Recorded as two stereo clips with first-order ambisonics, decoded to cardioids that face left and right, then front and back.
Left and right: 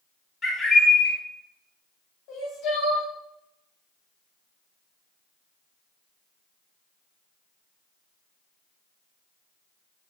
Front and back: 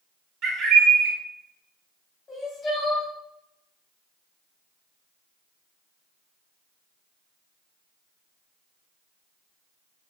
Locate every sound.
0.4 s a bird: 155° left, 0.7 m
2.3 s crying: 65° left, 1.5 m